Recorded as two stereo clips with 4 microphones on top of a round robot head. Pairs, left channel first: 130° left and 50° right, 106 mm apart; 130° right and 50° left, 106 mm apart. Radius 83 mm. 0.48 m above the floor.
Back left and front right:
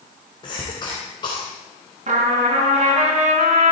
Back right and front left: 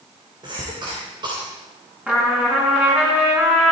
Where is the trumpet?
30° right, 3.5 m.